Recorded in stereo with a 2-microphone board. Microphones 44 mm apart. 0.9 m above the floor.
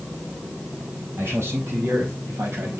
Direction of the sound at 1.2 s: 80° right.